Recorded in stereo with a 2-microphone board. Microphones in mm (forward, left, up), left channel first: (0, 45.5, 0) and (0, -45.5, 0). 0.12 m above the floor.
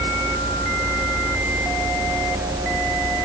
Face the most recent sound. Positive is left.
No sound to turn to.